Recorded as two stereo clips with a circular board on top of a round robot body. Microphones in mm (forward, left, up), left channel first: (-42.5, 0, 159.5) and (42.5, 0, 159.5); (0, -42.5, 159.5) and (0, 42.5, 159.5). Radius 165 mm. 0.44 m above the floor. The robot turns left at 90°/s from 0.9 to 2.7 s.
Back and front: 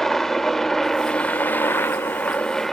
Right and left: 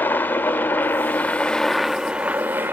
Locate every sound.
0.0 s a helicopter: 100° right; by 2.7 s 100° left